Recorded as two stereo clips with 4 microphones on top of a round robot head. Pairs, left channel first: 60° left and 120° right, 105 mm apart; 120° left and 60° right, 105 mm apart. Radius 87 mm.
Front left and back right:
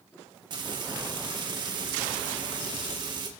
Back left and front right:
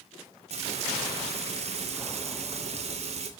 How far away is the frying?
About 3.5 m.